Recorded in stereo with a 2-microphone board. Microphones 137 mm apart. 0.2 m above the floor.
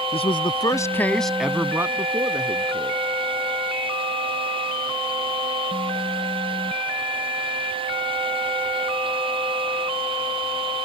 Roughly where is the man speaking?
Left.